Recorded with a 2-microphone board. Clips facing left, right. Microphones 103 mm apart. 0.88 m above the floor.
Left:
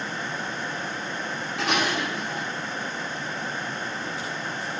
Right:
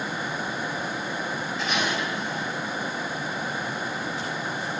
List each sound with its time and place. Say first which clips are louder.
1.6 s dishes clattering: left 3 dB; 80° left, 6 m